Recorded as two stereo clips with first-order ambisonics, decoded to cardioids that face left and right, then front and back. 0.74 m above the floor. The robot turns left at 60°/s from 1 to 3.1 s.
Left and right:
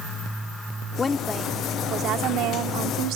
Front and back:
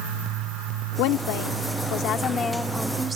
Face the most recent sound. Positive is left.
turn(degrees=-110)